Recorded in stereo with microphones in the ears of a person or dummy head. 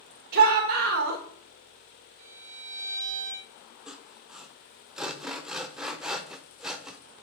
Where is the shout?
55° right (ahead or behind), 1.2 m.